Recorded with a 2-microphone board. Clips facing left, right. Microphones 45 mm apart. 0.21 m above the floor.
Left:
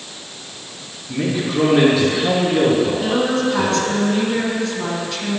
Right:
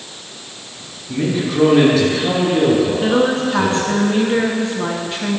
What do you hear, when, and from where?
1.1 s a man speaking: centre (ahead or behind), 3 m; by 4.0 s 25° left (ahead or behind), 4 m
3.0 s a woman speaking: 25° right (ahead or behind), 2.5 m